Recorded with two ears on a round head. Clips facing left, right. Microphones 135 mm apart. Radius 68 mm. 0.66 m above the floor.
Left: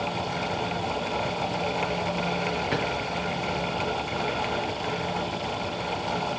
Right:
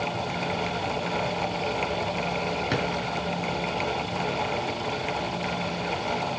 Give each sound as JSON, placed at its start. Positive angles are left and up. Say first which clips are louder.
{"t": 2.7, "sound": "a drawer", "louder": "right 1 dB", "side_deg": -45, "distance_m": 2.5}